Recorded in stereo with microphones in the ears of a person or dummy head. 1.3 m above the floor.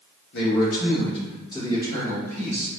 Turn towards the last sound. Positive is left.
turn(degrees=5)  # may be behind; listen again after turning